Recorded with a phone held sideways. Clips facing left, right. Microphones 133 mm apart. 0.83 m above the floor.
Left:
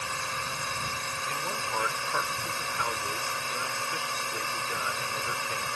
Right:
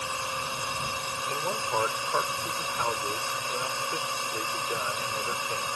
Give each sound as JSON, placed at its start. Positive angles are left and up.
{"t": 0.0, "sound": "a drone", "side_deg": -20}
{"t": 1.3, "sound": "a man speaking", "side_deg": -30}